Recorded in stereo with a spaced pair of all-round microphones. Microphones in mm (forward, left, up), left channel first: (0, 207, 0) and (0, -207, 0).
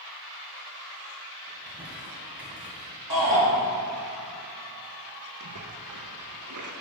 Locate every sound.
1.5 s crumpling: 5° right (ahead or behind), 2.5 m
3.1 s a shout: 45° left (ahead or behind), 3.5 m
5.4 s a splash: 50° right (ahead or behind), 0.9 m